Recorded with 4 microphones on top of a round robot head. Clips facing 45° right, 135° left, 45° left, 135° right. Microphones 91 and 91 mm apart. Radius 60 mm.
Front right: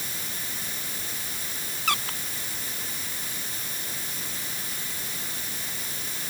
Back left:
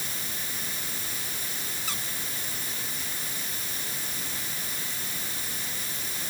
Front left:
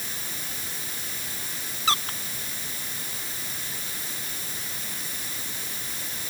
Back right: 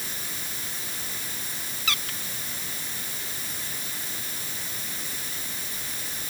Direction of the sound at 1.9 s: 15° right.